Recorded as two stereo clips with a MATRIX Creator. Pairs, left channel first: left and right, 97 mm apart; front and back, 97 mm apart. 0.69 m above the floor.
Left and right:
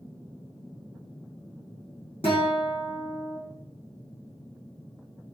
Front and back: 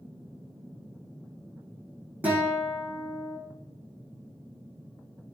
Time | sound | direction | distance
2.2 | a guitar | 105° left | 5.5 m